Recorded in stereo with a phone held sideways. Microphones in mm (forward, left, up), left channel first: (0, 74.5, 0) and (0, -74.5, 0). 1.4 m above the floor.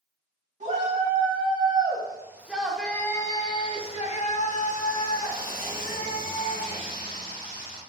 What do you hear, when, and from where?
0.6 s a shout: 50° right (ahead or behind), 1.5 m; by 7.8 s 80° left, 2.5 m